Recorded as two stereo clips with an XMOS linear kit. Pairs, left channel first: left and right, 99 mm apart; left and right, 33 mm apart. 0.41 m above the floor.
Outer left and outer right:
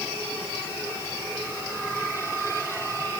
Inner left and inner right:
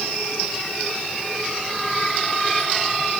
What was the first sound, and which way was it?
Only background noise.